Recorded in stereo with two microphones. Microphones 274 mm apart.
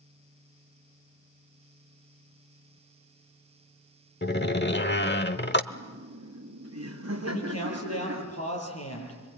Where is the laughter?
65° right (ahead or behind), 2.5 m.